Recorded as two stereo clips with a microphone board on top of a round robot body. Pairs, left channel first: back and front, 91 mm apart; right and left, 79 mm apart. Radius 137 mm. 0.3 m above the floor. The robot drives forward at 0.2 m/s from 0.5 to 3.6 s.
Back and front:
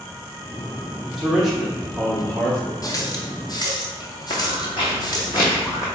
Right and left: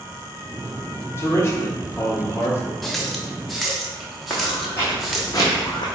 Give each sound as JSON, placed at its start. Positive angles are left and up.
{"t": 1.2, "sound": "a man speaking", "azimuth_deg": -80, "distance_m": 1.3}
{"t": 2.8, "sound": "a running tap", "azimuth_deg": -175, "distance_m": 0.9}
{"t": 4.3, "sound": "footsteps", "azimuth_deg": -165, "distance_m": 1.3}